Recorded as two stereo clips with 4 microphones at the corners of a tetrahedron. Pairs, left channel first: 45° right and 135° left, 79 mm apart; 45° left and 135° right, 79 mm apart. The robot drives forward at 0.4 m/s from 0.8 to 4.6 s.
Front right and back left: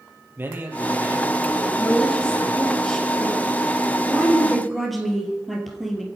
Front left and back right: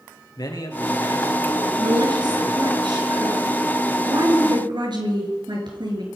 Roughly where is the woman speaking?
Behind right.